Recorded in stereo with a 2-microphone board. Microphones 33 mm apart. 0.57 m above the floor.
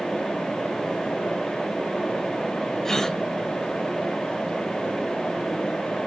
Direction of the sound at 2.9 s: 15° left (ahead or behind).